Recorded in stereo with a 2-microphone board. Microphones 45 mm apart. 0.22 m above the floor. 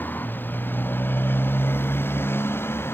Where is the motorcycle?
45° left (ahead or behind); by 2.9 s 60° left (ahead or behind).